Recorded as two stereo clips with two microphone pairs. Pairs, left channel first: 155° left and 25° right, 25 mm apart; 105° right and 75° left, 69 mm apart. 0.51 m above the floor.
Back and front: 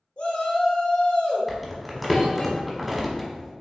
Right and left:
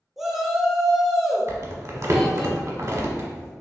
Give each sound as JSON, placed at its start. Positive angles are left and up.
{"t": 0.2, "sound": "a shout", "azimuth_deg": 155, "distance_m": 1.0}
{"t": 1.5, "sound": "crumpling", "azimuth_deg": 65, "distance_m": 1.0}